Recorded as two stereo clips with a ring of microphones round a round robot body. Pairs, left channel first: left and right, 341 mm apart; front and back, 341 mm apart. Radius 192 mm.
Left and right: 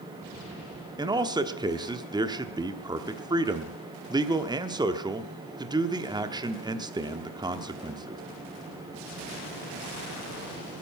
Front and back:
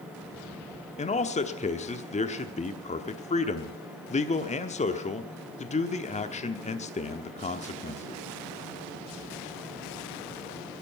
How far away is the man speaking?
About 1.1 m.